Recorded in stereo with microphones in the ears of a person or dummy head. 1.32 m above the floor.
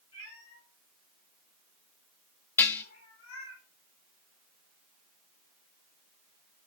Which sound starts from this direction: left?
A cat meowing, at 0.1 s.